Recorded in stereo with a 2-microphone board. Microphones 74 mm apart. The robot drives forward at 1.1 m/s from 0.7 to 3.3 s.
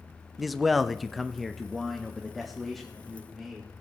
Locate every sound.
0.4 s a man speaking: centre (ahead or behind), 0.7 m